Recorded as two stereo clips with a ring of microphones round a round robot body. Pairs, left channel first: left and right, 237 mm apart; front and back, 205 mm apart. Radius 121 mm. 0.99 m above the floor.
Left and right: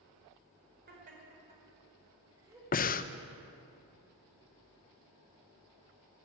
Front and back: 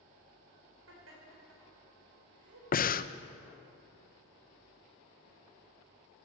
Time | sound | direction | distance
0.9 | laughter | 145° right | 4.5 m
2.7 | breathing | 40° left | 0.6 m